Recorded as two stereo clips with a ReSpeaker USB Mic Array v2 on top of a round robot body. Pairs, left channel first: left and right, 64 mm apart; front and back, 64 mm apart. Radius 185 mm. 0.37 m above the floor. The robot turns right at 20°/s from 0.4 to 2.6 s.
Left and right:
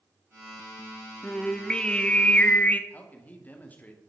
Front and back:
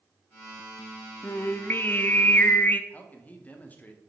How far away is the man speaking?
About 1.6 m.